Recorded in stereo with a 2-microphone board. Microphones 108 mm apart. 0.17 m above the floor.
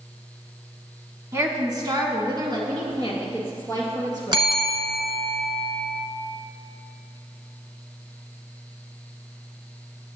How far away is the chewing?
No chewing in this recording.